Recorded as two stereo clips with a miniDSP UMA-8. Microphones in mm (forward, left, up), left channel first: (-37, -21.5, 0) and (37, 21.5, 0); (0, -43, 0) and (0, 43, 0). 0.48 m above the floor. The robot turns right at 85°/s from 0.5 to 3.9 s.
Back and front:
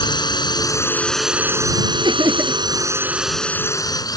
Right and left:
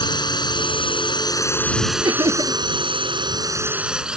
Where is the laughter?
60° left; by 2.6 s 110° left.